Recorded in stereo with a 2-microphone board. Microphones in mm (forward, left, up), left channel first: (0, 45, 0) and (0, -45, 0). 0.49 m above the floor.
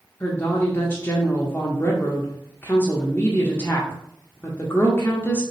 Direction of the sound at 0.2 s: 25° left (ahead or behind).